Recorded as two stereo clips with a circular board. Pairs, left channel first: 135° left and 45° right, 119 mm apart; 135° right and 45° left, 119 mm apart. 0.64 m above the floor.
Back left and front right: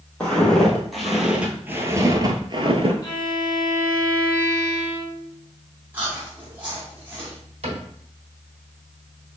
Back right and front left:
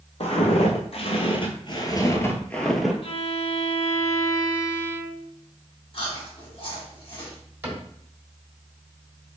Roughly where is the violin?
Behind.